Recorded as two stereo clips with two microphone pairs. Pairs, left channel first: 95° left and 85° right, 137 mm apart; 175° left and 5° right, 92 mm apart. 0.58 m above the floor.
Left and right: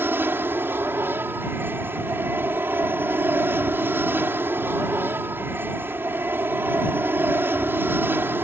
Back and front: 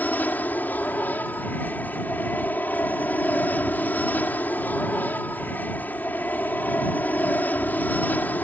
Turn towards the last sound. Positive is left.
turn(degrees=-140)